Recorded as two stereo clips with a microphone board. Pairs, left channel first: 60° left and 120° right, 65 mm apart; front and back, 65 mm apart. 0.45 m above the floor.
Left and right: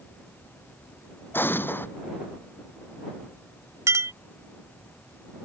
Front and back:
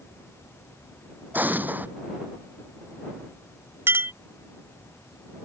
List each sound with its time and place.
1.3 s an explosion: 115° left
3.9 s a clink: 140° right